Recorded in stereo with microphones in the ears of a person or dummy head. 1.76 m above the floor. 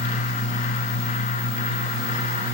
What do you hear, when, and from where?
Only background noise.